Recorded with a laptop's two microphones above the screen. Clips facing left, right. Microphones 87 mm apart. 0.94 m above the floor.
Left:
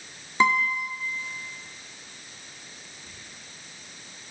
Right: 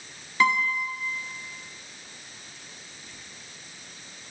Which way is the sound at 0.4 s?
25° left (ahead or behind).